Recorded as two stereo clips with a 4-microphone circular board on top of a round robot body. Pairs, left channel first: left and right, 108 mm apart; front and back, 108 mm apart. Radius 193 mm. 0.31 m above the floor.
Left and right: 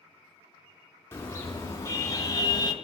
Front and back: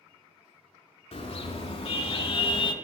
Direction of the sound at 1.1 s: 25° left.